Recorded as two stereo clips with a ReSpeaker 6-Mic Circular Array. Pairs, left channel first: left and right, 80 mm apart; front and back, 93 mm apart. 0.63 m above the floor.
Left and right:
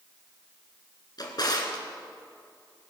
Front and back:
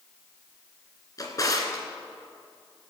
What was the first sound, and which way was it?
A drawer, 50° left.